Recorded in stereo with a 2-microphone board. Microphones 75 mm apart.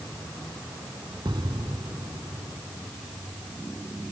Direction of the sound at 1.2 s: 80° right.